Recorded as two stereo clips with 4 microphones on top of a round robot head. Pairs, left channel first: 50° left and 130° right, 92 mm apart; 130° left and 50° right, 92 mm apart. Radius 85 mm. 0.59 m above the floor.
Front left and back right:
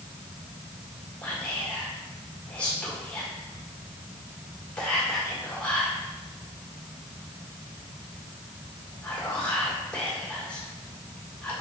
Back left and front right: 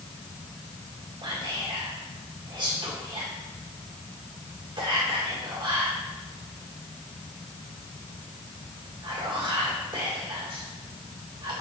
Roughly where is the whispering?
Ahead right.